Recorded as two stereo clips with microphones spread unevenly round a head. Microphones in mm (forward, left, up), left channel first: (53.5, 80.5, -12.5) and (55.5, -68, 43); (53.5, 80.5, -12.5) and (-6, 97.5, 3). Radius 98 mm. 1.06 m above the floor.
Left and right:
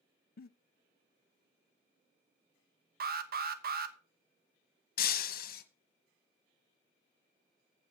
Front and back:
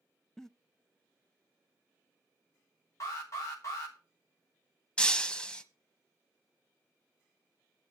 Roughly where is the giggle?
Left.